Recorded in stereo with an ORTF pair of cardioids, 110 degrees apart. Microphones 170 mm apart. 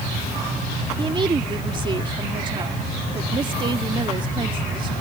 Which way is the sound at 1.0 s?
30° right.